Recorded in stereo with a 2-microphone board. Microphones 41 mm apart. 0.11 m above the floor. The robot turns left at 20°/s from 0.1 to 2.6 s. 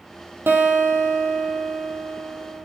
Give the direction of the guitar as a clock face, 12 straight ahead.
3 o'clock.